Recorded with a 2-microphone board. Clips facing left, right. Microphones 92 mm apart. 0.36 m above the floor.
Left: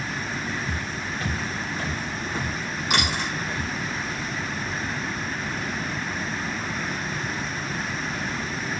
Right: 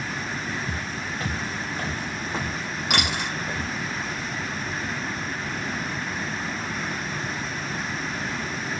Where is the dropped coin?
70° right (ahead or behind), 3 m.